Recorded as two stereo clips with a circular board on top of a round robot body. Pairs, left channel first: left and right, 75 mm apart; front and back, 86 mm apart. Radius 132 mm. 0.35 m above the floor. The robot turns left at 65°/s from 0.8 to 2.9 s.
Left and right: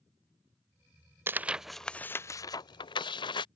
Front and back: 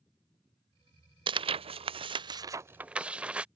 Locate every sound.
1.3 s tearing paper: 150° right; by 3.5 s 100° left